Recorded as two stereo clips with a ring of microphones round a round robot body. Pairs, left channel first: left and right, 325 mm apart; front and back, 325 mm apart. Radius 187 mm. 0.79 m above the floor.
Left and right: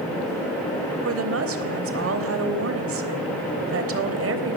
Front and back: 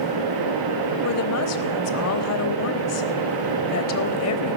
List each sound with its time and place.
1.0 s a woman speaking: 40° right, 3.5 m